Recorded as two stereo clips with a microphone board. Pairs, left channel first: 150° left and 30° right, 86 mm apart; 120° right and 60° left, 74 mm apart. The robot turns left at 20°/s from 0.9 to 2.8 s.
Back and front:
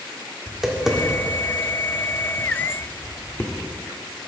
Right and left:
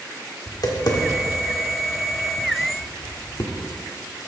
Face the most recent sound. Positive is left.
turn(degrees=-150)